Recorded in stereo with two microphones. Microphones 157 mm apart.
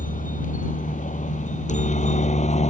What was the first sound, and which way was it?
A helicopter, 60° left (ahead or behind).